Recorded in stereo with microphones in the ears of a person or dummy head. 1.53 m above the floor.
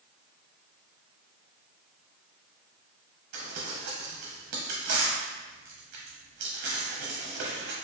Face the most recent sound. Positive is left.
turn(degrees=-40)  # may be behind; listen again after turning